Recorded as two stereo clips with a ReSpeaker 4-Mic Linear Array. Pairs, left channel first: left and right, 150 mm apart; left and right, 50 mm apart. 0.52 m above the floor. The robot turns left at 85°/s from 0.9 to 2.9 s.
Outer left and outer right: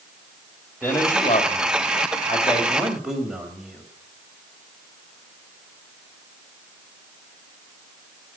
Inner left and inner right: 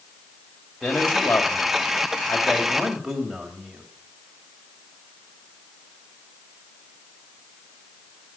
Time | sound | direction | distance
0.8 | a man speaking | 170° left | 3 m